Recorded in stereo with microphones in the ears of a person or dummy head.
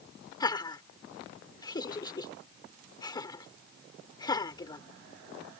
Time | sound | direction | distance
0.4 | laughter | 20° left (ahead or behind) | ?